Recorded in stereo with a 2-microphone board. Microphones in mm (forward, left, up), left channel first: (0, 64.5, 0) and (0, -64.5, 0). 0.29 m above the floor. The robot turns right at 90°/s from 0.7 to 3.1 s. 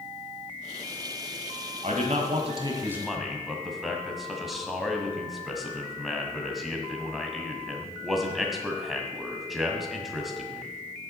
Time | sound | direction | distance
1.8 | a man speaking | 115° right | 1.6 m